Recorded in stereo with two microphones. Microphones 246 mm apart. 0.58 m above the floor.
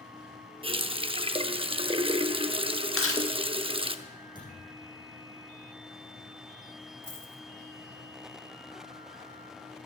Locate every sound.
0.6 s a running tap: 20° right (ahead or behind), 0.6 m
3.0 s chewing: 55° left (ahead or behind), 1.2 m
4.3 s a thud: 15° left (ahead or behind), 7 m
7.0 s a dropped coin: 55° left (ahead or behind), 1.8 m